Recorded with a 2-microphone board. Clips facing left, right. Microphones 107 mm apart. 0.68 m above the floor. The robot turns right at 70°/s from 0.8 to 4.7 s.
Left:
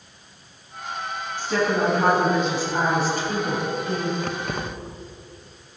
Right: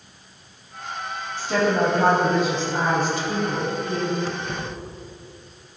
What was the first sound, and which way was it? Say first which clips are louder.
A woman speaking: right 2 dB; 80° right.